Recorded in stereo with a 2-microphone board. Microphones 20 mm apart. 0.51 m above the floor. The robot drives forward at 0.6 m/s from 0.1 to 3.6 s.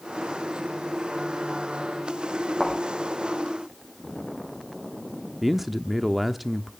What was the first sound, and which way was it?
A thud, 5° left (ahead or behind).